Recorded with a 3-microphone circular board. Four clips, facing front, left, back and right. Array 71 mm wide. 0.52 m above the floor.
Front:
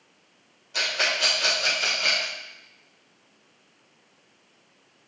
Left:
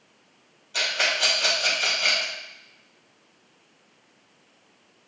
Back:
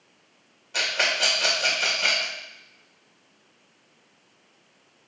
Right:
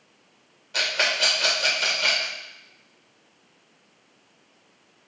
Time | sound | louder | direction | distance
0.7 | a rattle | right 1 dB, back 1 dB | 125° right | 2 m